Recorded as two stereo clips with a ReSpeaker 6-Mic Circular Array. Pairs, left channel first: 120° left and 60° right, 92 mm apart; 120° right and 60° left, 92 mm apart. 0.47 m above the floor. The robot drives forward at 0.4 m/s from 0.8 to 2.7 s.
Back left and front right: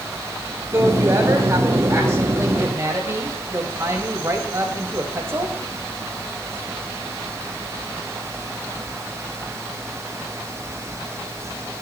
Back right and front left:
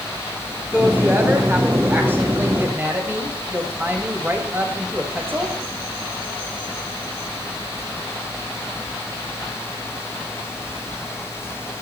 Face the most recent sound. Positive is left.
turn(degrees=-5)